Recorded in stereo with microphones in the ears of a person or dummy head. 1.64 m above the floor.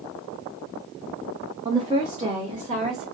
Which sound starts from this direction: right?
A woman speaking, at 1.6 s.